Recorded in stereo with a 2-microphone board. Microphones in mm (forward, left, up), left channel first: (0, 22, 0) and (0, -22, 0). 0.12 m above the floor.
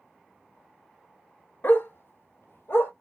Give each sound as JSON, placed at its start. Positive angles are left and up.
{"t": 1.6, "sound": "a dog barking", "side_deg": 50, "distance_m": 0.6}